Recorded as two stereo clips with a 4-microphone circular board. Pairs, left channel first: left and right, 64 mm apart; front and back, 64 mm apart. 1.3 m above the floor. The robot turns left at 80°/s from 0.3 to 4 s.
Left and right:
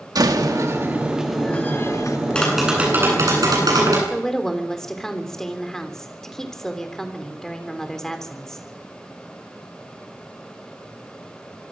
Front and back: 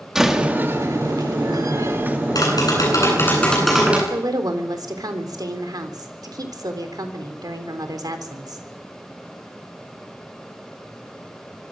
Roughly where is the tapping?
Ahead.